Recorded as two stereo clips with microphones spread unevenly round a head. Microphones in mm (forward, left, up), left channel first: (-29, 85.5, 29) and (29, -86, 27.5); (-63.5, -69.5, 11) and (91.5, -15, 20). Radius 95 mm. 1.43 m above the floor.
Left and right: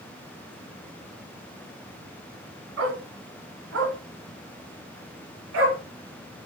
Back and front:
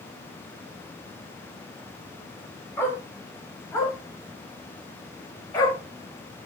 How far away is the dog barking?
About 3.5 m.